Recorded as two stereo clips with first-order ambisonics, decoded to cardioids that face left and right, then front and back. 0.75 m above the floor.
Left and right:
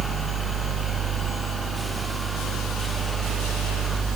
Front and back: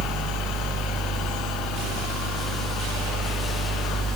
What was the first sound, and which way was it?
Only background noise.